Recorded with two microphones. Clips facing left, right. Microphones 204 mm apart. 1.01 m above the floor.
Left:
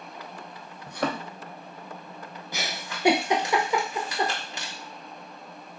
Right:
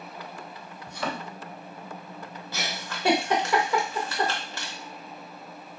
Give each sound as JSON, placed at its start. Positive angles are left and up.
{"t": 0.9, "sound": "a thud", "side_deg": 55, "distance_m": 0.7}
{"t": 2.5, "sound": "a giggle", "side_deg": 15, "distance_m": 0.7}